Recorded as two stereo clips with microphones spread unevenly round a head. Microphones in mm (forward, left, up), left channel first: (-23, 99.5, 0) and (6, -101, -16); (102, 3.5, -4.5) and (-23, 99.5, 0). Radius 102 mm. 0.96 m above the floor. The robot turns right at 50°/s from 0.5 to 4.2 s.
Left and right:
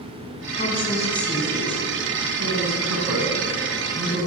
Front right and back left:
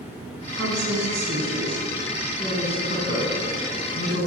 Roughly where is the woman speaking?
Behind left.